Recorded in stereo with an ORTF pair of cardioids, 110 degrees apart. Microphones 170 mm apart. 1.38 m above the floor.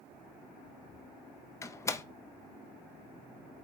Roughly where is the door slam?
Ahead.